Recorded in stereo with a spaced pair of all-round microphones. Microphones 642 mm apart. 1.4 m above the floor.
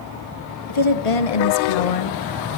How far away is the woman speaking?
About 1.1 m.